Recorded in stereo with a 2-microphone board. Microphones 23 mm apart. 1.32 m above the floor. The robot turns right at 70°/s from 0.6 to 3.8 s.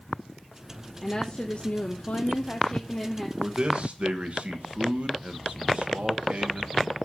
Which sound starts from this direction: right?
A man speaking, at 3.4 s.